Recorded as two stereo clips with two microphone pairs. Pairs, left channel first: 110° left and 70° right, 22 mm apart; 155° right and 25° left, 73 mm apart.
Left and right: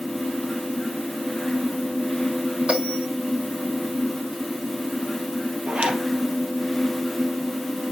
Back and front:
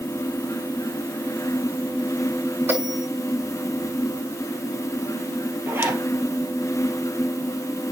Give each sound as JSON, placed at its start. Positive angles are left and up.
{"t": 2.7, "sound": "a bell", "azimuth_deg": -35, "distance_m": 8.5}
{"t": 5.7, "sound": "a zipper", "azimuth_deg": -35, "distance_m": 2.5}